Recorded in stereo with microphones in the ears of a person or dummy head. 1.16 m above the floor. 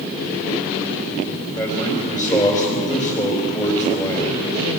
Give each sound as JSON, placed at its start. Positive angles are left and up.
{"t": 1.6, "sound": "a man speaking", "side_deg": 15, "distance_m": 3.5}